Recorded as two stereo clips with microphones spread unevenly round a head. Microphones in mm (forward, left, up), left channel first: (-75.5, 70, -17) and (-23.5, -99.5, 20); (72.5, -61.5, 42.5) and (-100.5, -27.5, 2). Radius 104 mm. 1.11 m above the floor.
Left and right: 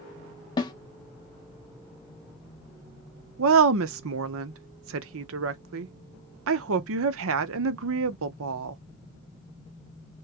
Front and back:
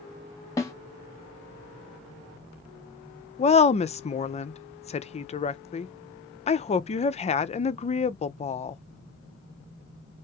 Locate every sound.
0.6 s a snare drum: 35° left, 0.5 m
3.4 s a woman speaking: 70° right, 0.6 m